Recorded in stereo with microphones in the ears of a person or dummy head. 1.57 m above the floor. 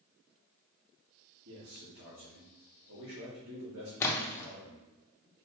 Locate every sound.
1.4 s a man speaking: 80° right, 1.7 m
4.0 s a splash: 15° left (ahead or behind), 0.6 m